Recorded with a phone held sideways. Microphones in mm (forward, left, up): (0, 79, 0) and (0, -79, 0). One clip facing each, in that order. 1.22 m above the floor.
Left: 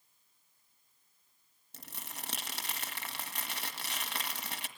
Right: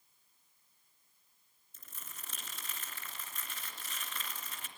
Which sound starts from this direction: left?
Crumpling, at 1.7 s.